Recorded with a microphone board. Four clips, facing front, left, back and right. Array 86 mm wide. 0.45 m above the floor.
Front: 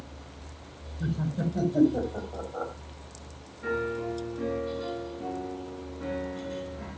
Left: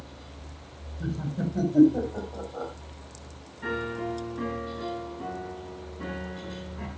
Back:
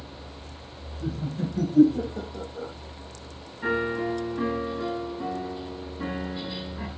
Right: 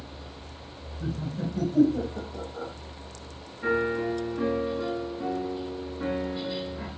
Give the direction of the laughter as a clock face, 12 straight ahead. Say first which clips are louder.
Left 1 dB, even; 10 o'clock.